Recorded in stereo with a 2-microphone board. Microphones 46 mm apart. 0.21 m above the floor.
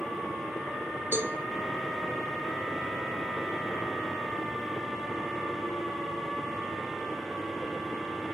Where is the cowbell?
50° right (ahead or behind), 1.3 m.